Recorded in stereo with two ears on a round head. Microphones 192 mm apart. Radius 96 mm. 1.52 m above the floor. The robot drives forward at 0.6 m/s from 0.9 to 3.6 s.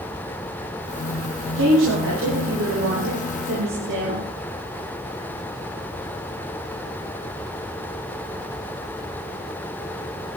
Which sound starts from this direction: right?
A woman speaking, at 1.6 s.